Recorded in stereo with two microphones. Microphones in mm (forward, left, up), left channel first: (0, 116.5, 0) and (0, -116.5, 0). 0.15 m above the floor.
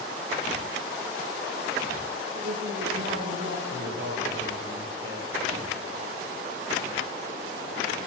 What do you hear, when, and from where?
2.3 s a woman speaking: 60° right (ahead or behind), 3 m
3.7 s a man speaking: 60° right (ahead or behind), 4 m